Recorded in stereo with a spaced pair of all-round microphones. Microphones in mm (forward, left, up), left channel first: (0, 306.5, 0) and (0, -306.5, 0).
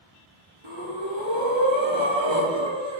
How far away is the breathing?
About 1.0 m.